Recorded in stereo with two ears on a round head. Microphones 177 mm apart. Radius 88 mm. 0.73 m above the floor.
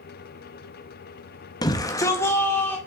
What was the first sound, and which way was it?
A shout, 20° left (ahead or behind).